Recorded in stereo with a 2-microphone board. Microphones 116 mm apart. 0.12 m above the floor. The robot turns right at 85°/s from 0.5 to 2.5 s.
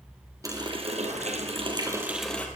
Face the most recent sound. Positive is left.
turn(degrees=20)